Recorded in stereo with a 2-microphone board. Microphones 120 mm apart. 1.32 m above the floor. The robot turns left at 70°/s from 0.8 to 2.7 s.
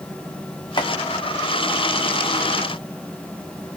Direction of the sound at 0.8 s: 35° left (ahead or behind).